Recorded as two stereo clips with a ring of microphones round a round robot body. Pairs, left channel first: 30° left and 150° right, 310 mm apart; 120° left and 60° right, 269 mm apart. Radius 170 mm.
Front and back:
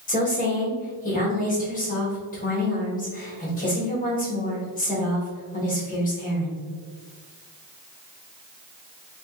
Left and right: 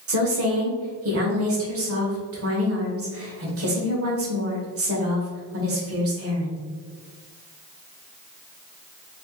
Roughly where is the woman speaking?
Ahead right.